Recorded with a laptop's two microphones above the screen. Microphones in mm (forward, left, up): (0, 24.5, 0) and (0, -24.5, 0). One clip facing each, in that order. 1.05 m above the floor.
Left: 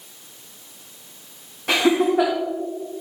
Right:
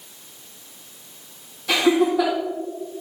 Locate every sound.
1.7 s laughter: 45° left (ahead or behind), 1.7 m